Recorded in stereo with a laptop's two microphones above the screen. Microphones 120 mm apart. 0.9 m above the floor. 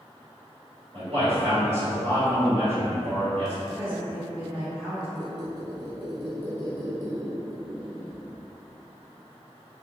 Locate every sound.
0.9 s a man speaking: 60° right (ahead or behind), 1.7 m
3.7 s a woman speaking: 40° right (ahead or behind), 1.5 m
5.2 s a squeak: 35° right (ahead or behind), 1.2 m